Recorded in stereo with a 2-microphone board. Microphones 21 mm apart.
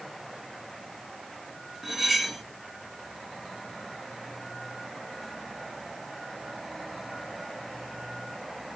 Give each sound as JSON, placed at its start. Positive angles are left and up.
{"t": 1.8, "sound": "cutlery clinking", "side_deg": -15, "distance_m": 2.0}